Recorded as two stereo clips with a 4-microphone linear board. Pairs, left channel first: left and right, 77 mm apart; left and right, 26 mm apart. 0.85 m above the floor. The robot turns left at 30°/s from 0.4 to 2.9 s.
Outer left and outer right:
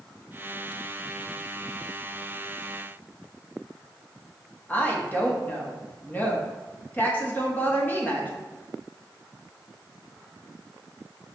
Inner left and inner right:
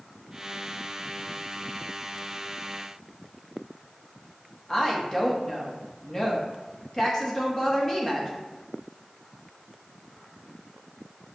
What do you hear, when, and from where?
4.7 s a woman speaking: 25° left (ahead or behind), 1.1 m